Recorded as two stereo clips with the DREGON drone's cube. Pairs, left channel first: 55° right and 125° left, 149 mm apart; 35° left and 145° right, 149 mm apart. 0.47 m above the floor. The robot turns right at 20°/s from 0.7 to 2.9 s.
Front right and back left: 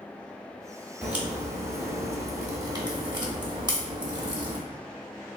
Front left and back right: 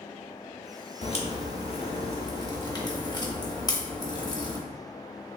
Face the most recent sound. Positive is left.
turn(degrees=80)